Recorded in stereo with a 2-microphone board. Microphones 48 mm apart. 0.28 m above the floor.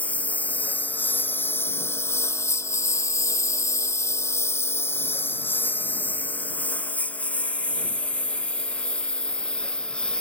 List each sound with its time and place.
0.0 s a lawn mower: 30° left (ahead or behind); by 10.2 s 20° left (ahead or behind)